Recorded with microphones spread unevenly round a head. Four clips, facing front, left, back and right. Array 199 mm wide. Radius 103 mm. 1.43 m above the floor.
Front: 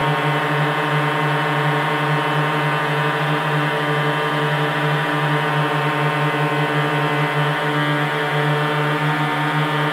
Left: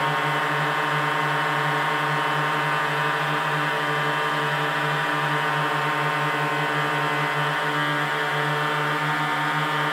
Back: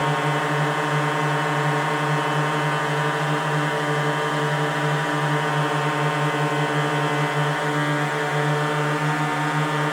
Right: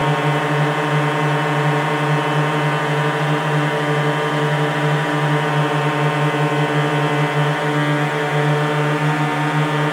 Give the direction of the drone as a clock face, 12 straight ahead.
2 o'clock.